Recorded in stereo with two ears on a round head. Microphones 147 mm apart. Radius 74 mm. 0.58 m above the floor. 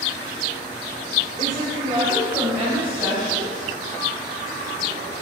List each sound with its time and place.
1.4 s a woman speaking: 40° right (ahead or behind), 2.0 m; by 3.7 s centre (ahead or behind), 5 m